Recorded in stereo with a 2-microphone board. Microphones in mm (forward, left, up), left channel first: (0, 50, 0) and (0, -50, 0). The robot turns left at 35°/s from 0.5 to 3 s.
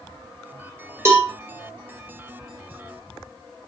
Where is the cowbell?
30° right (ahead or behind), 1.6 m; by 1.3 s 20° right (ahead or behind), 1.6 m.